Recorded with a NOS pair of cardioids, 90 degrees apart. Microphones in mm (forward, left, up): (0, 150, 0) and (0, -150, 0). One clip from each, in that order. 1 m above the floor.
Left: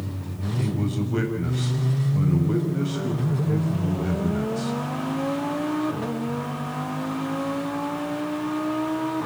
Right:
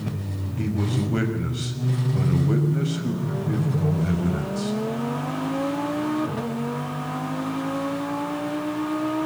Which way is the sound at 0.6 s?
15° right.